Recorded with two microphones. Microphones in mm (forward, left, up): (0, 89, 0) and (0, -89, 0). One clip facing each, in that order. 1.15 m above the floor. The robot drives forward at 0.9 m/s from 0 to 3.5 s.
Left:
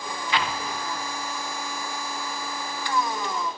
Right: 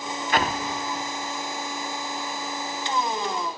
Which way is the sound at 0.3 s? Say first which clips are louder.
Right 3 dB; 50° right (ahead or behind).